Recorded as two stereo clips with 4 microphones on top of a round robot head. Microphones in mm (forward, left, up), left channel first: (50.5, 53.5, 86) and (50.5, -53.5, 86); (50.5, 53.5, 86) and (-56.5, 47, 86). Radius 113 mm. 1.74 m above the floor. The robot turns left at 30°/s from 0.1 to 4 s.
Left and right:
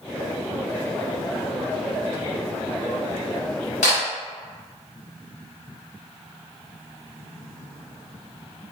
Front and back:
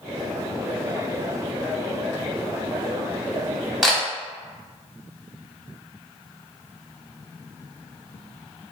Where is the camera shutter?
95° left, 0.7 m; by 4.0 s 90° left, 0.7 m.